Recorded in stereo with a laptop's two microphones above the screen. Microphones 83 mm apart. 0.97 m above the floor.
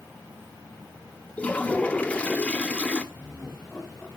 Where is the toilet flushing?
15° left (ahead or behind), 1.3 m.